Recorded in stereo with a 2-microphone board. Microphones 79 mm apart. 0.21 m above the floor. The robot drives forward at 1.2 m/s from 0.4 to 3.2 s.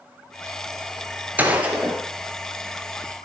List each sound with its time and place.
1.4 s a gunshot: 25° right (ahead or behind), 1.5 m; by 2.0 s 15° right (ahead or behind), 2 m